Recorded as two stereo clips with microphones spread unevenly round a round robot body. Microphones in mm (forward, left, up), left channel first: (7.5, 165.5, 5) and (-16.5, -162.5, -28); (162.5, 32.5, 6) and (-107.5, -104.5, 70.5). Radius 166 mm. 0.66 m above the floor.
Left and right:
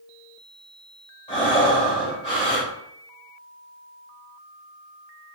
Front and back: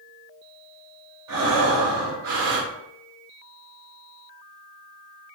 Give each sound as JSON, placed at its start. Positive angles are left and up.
{"t": 1.3, "sound": "breathing", "azimuth_deg": 160, "distance_m": 3.0}